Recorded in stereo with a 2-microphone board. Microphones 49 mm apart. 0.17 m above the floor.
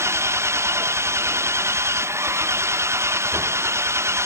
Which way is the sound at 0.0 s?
70° right (ahead or behind).